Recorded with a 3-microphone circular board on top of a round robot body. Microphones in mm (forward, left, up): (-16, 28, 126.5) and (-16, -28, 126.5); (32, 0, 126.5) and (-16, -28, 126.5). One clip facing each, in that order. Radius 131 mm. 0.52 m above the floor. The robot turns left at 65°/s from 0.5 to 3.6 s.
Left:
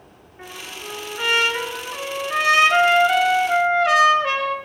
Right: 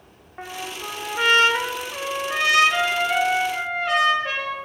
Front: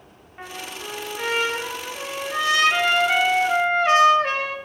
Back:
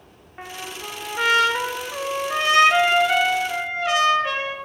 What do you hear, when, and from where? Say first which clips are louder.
0.4 s a trumpet: right 3 dB, back 1 dB; 80° right, 1.2 m; by 4.5 s 80° left, 1.2 m